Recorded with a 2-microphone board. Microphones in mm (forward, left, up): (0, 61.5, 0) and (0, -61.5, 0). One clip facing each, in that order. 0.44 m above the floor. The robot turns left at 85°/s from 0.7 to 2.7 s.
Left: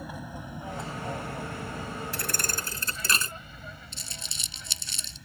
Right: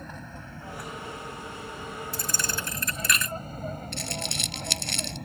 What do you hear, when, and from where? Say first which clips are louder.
0.0 s an aircraft: left 3 dB; 10° left (ahead or behind); by 5.3 s 60° right (ahead or behind)
2.1 s a thud: right 1 dB; 80° left; by 3.3 s 30° left
3.9 s crumpling: right 12 dB; 65° right (ahead or behind)